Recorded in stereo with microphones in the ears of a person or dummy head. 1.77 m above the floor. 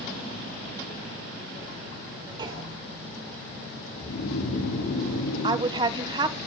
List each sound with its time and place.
2.4 s a clunk: 30° right (ahead or behind), 3.5 m
4.0 s snoring: 70° left (ahead or behind), 9 m
5.4 s a woman speaking: 25° right (ahead or behind), 1.4 m